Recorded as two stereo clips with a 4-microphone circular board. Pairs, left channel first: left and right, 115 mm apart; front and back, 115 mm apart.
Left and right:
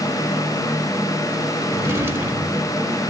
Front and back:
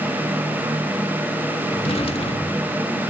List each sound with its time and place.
1.7 s a drawer: 25° right, 1.4 m